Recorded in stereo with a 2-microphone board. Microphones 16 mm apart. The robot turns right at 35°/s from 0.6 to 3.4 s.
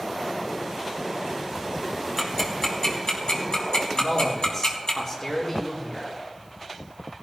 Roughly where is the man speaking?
Left.